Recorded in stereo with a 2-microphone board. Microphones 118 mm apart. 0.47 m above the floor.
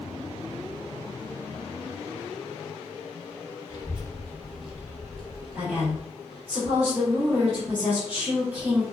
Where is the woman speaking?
10° right (ahead or behind), 0.8 m.